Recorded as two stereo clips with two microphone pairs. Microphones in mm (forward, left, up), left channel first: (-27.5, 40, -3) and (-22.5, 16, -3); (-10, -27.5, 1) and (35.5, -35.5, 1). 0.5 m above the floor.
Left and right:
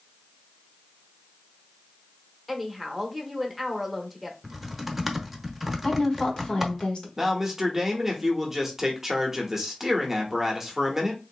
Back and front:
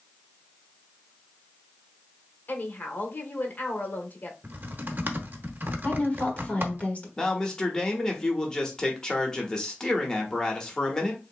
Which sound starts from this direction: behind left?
A woman speaking, at 5.8 s.